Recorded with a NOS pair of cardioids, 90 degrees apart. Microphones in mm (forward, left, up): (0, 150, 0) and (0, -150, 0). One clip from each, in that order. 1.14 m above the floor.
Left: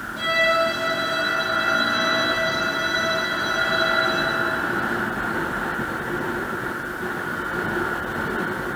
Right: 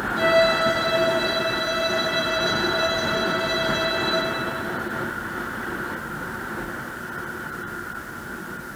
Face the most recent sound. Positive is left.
turn(degrees=-10)